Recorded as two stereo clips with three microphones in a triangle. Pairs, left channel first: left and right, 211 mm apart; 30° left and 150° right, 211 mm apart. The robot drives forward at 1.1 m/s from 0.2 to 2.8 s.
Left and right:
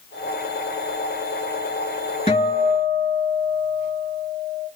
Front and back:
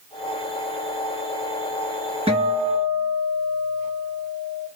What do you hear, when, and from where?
2.3 s a guitar: 150° left, 2.5 m; by 4.7 s 155° left, 3 m